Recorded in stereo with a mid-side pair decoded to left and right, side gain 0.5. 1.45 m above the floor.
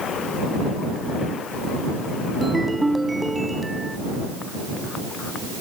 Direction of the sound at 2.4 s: 10° right.